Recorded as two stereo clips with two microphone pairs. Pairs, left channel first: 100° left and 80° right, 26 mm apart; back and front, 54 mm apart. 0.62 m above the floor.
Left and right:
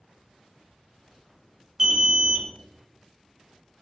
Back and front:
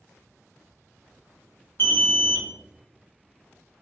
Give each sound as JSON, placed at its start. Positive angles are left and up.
{"t": 1.8, "sound": "an alarm", "azimuth_deg": -150, "distance_m": 0.7}